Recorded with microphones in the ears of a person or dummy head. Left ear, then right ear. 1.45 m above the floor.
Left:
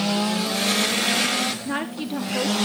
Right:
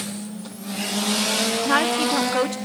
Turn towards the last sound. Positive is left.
turn(degrees=-45)  # may be behind; listen again after turning